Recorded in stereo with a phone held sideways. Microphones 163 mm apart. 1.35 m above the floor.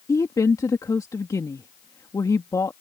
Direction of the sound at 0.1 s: 20° left (ahead or behind).